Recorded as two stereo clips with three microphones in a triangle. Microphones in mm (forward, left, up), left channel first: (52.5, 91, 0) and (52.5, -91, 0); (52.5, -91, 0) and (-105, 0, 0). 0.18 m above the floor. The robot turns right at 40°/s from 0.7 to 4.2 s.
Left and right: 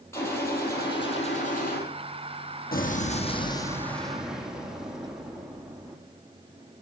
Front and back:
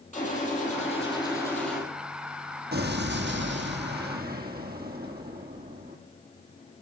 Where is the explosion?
125° left, 1.7 m; by 6.0 s 175° right, 1.7 m.